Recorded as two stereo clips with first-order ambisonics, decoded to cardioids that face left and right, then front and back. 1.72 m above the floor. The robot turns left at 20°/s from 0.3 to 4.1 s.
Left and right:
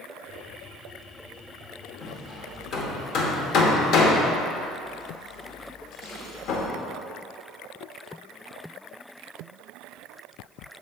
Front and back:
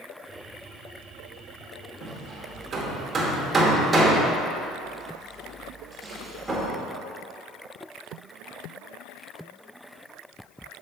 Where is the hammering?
140° left, 0.9 m; by 6.7 s 100° left, 0.9 m.